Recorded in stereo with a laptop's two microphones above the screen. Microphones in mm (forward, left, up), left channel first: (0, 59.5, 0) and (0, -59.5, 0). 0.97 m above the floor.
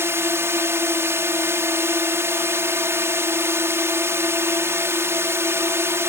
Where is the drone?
20° right (ahead or behind).